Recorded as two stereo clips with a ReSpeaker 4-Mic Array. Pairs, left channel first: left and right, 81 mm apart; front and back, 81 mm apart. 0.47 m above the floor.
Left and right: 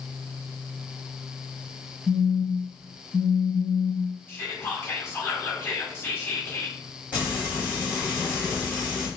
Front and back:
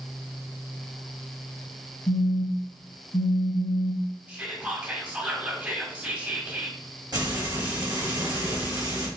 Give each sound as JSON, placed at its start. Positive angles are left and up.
{"t": 2.1, "sound": "a phone buzzing", "azimuth_deg": 10, "distance_m": 1.0}
{"t": 4.3, "sound": "whispering", "azimuth_deg": 125, "distance_m": 1.1}
{"t": 7.1, "sound": "frying", "azimuth_deg": -165, "distance_m": 2.0}